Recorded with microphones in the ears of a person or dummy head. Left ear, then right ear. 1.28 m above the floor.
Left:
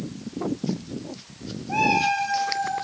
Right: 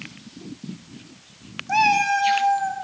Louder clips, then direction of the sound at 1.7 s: Right 3 dB; 60° right (ahead or behind).